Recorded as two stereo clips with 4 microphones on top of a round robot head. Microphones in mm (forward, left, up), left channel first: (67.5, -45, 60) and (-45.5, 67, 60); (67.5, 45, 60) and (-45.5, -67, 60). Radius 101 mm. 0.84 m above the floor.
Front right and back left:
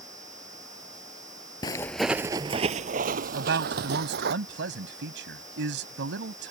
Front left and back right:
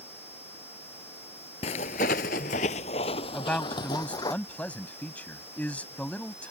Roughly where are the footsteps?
Ahead.